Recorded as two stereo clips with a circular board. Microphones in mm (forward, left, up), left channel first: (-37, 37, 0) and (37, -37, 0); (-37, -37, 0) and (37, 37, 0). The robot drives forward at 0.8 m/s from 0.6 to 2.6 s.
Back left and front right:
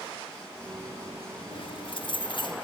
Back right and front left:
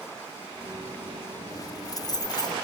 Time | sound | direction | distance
1.5 | keys jangling | 170° left | 0.6 m